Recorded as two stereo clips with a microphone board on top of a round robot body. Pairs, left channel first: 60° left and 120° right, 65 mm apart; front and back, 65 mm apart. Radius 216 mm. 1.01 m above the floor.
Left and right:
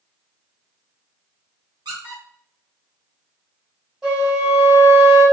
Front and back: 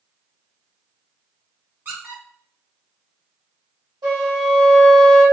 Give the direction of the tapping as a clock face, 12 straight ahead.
No tapping in this recording.